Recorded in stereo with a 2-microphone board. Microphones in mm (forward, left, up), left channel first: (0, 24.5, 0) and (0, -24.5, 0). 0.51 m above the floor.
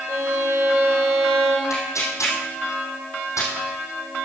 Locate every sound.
0.1 s a violin: 85° right, 6.5 m
1.7 s tearing paper: 85° left, 4.5 m